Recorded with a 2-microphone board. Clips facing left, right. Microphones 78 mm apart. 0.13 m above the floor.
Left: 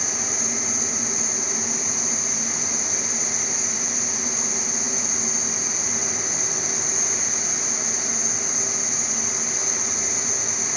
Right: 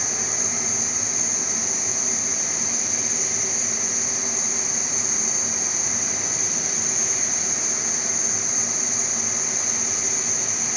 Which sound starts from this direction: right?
An insect, at 0.0 s.